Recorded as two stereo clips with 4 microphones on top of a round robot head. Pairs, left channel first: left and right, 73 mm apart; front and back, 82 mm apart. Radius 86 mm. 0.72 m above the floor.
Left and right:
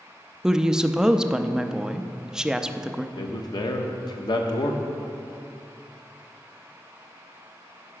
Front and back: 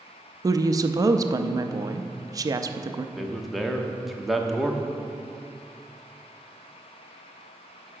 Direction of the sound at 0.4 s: 170° right.